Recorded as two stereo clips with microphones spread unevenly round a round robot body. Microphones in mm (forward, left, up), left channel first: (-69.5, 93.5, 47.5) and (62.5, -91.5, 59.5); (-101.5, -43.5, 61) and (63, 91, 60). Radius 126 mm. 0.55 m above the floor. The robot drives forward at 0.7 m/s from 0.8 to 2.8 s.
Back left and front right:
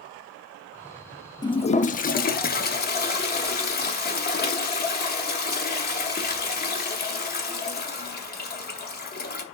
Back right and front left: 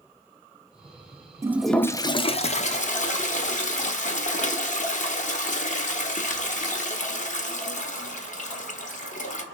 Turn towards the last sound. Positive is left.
turn(degrees=170)